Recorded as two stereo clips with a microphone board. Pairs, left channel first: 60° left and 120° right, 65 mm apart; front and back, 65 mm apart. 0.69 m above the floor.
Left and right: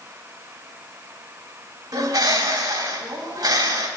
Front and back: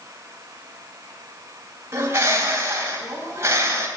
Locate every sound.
1.9 s a bird: 130° right, 3 m